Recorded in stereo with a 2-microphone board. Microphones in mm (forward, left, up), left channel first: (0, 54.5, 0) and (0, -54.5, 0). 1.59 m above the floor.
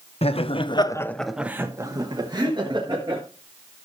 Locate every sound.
0.2 s laughter: 65° left (ahead or behind), 1.0 m; by 3.2 s 50° right (ahead or behind), 2 m